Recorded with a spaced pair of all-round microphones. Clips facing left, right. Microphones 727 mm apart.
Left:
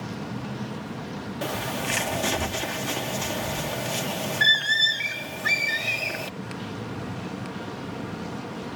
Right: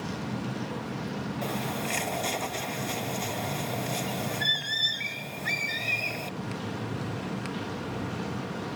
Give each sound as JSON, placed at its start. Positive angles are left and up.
{"t": 1.4, "sound": "a bird", "side_deg": 85}